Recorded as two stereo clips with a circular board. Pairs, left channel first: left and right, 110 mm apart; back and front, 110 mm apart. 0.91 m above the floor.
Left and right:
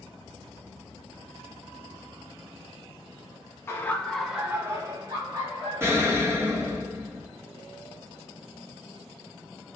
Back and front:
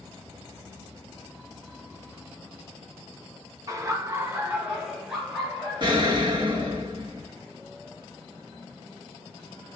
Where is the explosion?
30° right, 1.3 m.